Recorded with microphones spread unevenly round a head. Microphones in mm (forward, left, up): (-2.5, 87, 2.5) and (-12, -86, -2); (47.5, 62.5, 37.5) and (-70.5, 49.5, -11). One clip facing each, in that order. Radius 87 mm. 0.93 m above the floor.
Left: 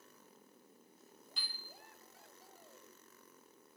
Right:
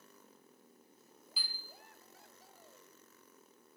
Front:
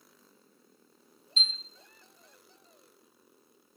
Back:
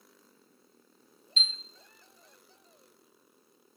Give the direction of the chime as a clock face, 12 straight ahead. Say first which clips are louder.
Right 2 dB, even; 6 o'clock.